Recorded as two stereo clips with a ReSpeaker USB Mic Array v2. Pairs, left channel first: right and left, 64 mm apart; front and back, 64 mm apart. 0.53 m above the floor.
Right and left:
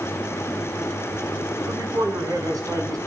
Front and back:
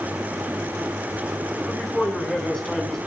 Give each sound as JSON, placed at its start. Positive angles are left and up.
{"t": 1.7, "sound": "a man speaking", "azimuth_deg": 85, "distance_m": 5.5}